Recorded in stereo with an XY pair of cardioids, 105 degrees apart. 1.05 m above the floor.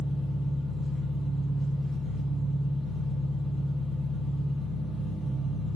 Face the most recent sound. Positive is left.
turn(degrees=55)